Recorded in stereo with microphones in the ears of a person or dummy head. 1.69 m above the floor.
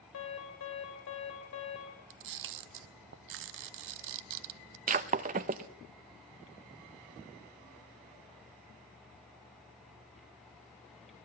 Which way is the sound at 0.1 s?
85° left.